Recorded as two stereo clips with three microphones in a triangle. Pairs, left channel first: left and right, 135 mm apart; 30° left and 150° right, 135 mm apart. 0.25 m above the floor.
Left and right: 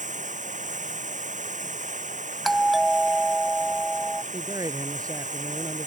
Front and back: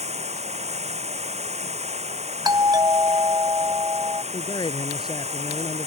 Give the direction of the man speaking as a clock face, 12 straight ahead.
1 o'clock.